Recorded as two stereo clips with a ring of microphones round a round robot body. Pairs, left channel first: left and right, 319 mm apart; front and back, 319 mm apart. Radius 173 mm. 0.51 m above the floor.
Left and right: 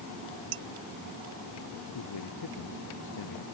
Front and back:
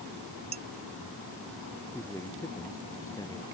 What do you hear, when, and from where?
0.5 s dishes clattering: 105° right
1.9 s a man speaking: 80° left